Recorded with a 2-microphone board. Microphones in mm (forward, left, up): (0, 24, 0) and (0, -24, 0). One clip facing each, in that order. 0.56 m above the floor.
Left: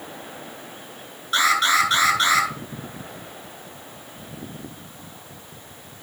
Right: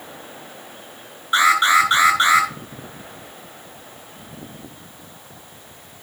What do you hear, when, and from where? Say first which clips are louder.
1.3 s an alarm: right 4 dB; 25° right (ahead or behind), 7 m